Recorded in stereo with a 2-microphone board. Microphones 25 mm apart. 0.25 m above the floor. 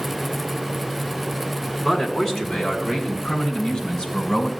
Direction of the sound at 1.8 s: 10° left (ahead or behind).